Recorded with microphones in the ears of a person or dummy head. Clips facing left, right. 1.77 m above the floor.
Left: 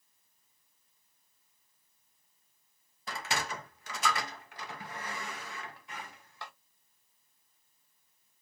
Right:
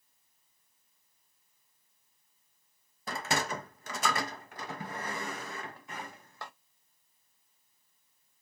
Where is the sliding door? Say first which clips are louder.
Right 4 dB; 50° right (ahead or behind), 0.7 m.